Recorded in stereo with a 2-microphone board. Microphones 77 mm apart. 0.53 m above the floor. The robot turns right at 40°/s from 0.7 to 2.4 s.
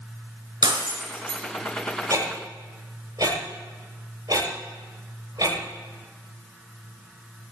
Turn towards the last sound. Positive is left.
turn(degrees=-55)  # may be behind; listen again after turning